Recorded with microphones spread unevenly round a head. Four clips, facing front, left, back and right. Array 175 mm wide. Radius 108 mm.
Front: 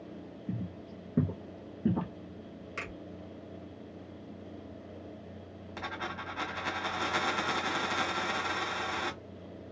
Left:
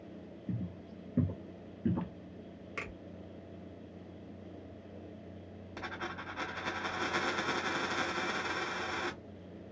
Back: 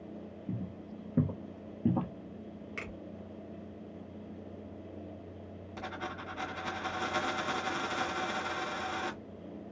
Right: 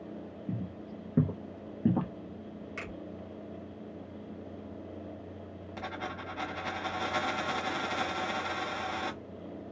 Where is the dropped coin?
90° left, 2.5 m.